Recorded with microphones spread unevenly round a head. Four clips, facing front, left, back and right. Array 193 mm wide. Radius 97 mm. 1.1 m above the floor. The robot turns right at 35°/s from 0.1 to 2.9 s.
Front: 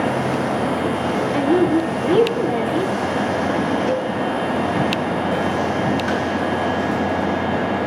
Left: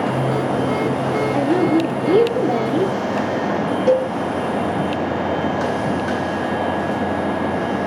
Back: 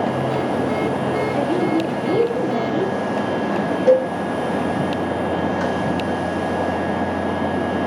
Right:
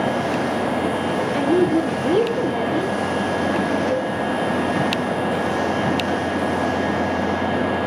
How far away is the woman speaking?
About 1.0 m.